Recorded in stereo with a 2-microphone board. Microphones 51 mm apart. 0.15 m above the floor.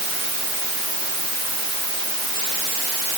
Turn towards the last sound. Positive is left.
No sound to turn to.